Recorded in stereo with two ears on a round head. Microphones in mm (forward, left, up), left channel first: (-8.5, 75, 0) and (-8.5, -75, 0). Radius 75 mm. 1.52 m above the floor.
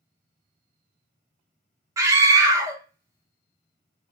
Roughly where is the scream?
Centre.